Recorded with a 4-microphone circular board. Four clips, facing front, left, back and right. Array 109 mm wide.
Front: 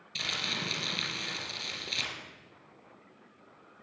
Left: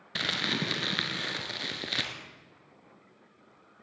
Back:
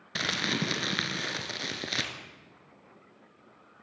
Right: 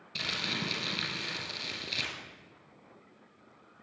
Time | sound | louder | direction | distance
0.1 | crumpling | left 5 dB, back 7 dB | 145° left | 2.5 m